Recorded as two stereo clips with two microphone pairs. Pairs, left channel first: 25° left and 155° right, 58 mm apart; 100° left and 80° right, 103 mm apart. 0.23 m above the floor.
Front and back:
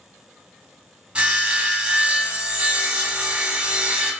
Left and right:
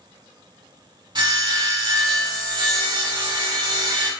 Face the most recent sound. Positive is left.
turn(degrees=-90)